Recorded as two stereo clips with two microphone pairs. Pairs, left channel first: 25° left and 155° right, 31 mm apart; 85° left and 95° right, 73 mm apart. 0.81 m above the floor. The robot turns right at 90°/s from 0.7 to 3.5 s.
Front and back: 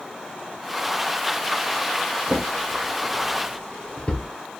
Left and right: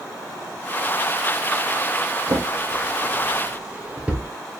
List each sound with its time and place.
2.3 s a drawer: 130° right, 2.0 m; by 4.3 s 20° right, 2.0 m